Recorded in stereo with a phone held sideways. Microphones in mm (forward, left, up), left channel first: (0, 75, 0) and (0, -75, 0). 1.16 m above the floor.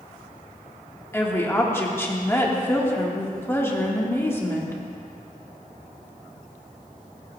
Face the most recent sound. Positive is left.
turn(degrees=20)  # may be behind; listen again after turning